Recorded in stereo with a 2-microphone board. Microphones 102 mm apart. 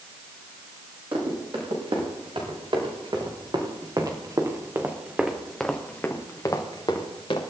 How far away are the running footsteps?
About 7.5 m.